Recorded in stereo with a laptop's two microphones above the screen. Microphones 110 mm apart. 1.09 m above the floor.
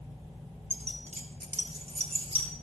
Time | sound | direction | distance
0.7 | keys jangling | 65° right (ahead or behind) | 1.3 m